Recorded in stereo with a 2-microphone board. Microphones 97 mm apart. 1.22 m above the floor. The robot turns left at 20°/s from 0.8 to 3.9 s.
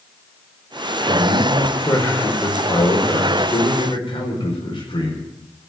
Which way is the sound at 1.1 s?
170° left.